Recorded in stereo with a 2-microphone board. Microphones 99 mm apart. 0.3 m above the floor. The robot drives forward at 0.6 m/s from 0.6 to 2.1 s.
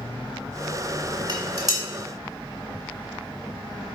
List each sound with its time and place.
1.3 s dishes clattering: 45° right (ahead or behind), 1.2 m; by 1.8 s 35° right (ahead or behind), 1.3 m